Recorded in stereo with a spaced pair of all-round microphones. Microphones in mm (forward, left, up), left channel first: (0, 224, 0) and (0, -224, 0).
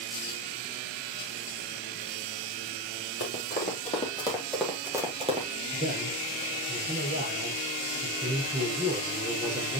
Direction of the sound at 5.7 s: 15° right (ahead or behind).